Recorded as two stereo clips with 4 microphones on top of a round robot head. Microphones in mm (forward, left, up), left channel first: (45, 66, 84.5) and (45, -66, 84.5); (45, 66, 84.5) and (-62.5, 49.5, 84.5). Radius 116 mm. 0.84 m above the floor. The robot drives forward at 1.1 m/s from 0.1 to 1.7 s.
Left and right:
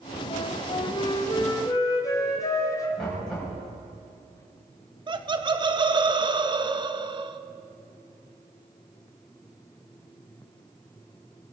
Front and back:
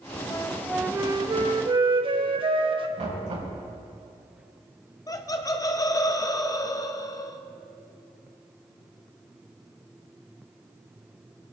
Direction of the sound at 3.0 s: 175° left.